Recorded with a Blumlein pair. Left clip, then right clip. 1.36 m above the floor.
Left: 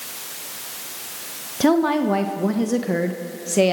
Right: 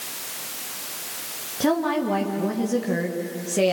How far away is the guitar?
I don't hear a guitar.